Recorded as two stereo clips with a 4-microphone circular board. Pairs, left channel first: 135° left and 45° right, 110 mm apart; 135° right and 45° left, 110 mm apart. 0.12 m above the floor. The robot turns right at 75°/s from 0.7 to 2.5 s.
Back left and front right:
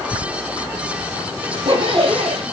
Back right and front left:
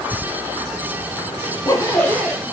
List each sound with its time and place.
1.4 s a zipper: 105° right, 1.1 m; by 2.4 s 30° right, 1.1 m